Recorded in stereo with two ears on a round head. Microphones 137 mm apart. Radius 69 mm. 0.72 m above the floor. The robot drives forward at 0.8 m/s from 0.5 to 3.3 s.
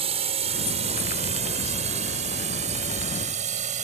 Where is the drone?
40° right (ahead or behind); by 3.9 s 50° right (ahead or behind).